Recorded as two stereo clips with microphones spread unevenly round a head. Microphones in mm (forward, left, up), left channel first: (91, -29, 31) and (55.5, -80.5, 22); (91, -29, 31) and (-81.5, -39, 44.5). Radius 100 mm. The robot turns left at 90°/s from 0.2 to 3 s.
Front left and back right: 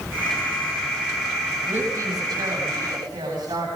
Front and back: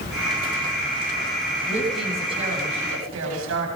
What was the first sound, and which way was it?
A woman speaking, 60° right.